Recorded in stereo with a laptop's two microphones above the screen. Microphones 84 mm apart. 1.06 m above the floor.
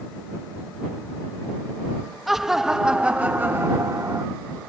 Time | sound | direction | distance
2.3 | laughter | 5° right (ahead or behind) | ?